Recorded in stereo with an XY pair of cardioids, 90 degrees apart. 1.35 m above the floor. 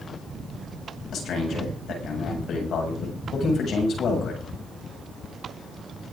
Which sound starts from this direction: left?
A man speaking, at 1.1 s.